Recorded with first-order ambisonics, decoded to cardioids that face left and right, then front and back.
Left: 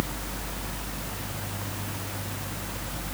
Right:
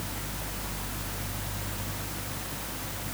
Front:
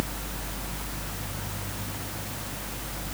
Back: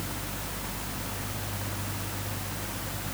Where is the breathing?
No breathing in this recording.